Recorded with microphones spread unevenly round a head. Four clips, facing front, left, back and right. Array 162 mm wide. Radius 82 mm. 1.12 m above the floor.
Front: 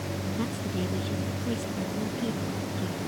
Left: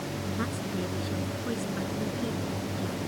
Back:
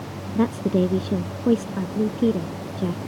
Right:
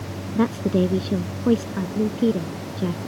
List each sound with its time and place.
0.3 s a woman speaking: 135° right